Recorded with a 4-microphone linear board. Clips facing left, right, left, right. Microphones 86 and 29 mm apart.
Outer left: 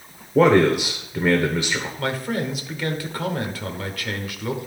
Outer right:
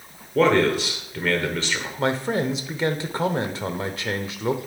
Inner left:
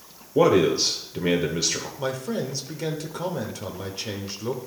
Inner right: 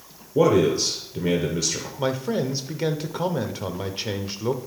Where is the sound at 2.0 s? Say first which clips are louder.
Outer right 5 dB, inner right 6 dB; 25° right (ahead or behind), 0.8 m.